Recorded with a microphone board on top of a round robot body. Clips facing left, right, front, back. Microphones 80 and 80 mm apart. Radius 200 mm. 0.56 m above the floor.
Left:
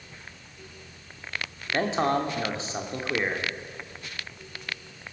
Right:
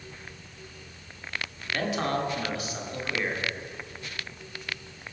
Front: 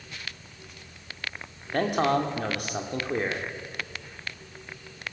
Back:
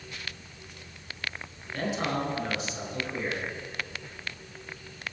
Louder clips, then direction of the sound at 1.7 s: Left 4 dB, front 6 dB; 30° left.